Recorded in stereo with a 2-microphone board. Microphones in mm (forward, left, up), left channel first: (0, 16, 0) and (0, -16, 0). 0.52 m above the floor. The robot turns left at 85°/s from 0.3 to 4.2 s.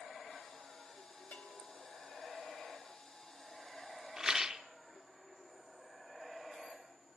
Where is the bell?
110° left, 3.5 m; by 1.7 s 80° left, 3.5 m.